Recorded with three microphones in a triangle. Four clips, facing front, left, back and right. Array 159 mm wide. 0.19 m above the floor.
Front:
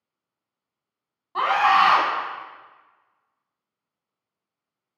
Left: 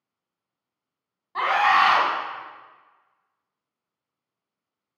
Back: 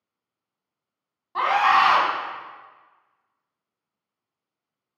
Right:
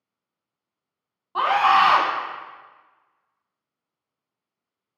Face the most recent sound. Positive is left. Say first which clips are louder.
# right 2 dB, even
turn(degrees=-85)